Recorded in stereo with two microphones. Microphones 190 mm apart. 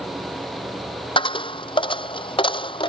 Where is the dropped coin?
25° left (ahead or behind).